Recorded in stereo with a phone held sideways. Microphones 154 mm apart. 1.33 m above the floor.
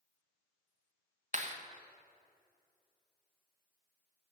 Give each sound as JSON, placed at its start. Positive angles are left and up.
{"t": 1.3, "sound": "a clap", "side_deg": -50, "distance_m": 1.2}